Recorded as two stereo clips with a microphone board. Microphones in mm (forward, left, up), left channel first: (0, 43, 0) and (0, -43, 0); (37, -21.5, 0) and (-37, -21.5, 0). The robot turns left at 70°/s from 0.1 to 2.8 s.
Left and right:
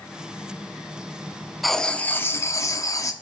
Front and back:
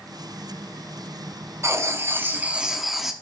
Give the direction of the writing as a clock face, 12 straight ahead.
6 o'clock.